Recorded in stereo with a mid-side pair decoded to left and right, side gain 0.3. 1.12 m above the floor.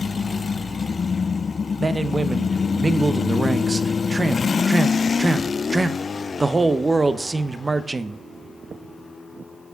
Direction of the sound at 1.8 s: 30° right.